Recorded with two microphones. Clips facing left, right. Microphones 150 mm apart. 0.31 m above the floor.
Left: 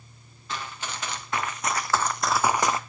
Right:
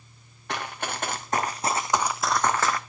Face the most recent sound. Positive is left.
turn(degrees=25)  # may be behind; listen again after turning